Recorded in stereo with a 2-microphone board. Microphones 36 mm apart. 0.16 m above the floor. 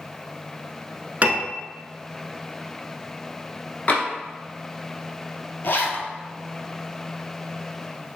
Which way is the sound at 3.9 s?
40° left (ahead or behind).